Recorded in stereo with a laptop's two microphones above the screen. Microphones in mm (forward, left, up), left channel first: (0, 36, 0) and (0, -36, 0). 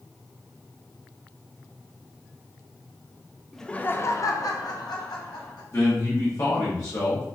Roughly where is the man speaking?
Left.